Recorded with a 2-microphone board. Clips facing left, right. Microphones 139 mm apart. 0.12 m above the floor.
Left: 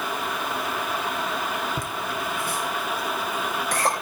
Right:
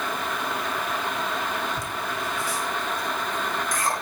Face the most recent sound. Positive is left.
turn(degrees=70)  # may be behind; listen again after turning